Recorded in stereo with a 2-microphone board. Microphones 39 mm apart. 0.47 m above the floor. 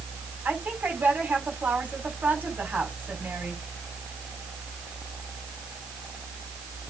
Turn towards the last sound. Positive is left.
turn(degrees=-45)  # may be behind; listen again after turning